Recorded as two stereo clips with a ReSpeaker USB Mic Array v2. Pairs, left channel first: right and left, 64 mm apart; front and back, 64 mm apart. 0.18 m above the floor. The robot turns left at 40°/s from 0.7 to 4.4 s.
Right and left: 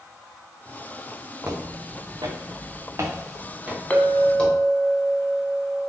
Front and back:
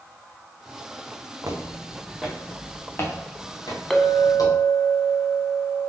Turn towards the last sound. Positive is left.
turn(degrees=-95)